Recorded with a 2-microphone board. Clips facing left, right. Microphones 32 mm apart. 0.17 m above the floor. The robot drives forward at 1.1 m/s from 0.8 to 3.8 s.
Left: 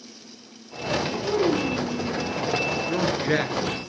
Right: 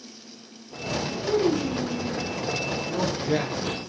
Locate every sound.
1.2 s a child speaking: 15° left (ahead or behind), 3 m; by 2.2 s 25° left (ahead or behind), 2.0 m
2.9 s a man speaking: 55° left (ahead or behind), 3 m; by 3.8 s 60° left (ahead or behind), 3 m